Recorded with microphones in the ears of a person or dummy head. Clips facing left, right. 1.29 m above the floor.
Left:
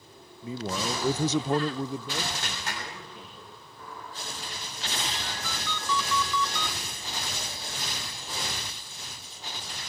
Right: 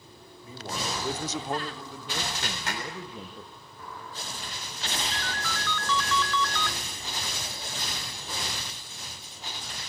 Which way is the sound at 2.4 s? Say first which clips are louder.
Right 2 dB; 55° right (ahead or behind).